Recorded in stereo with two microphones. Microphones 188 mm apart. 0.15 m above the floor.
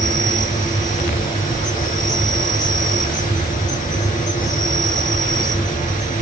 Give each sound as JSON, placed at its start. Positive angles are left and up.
{"t": 0.0, "sound": "an insect", "side_deg": 45, "distance_m": 2.0}